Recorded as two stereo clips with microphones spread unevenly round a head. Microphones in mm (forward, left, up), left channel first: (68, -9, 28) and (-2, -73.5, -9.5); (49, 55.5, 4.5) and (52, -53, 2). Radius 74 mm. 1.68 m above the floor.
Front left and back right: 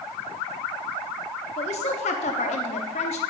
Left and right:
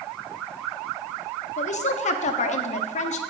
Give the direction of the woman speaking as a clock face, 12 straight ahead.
10 o'clock.